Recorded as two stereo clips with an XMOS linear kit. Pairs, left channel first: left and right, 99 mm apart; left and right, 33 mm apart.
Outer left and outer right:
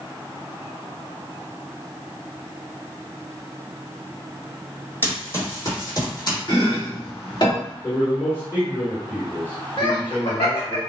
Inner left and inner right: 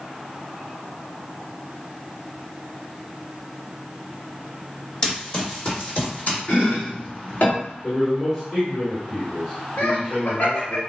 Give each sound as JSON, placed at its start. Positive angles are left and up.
{"t": 5.0, "sound": "running footsteps", "side_deg": 25, "distance_m": 2.5}
{"t": 6.5, "sound": "chopping", "side_deg": 55, "distance_m": 1.9}
{"t": 7.8, "sound": "a man speaking", "side_deg": 25, "distance_m": 1.8}
{"t": 9.8, "sound": "laughter", "side_deg": 70, "distance_m": 1.0}